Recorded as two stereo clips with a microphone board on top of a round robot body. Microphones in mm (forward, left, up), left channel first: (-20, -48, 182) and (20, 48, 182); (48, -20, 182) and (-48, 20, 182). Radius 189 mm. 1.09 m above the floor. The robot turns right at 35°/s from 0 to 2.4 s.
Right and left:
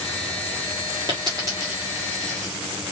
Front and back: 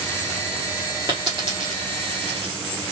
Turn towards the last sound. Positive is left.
turn(degrees=155)